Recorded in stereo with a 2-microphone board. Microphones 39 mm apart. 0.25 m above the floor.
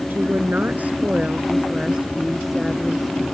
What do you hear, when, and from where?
0.1 s a woman speaking: 60° right (ahead or behind); by 3.2 s centre (ahead or behind)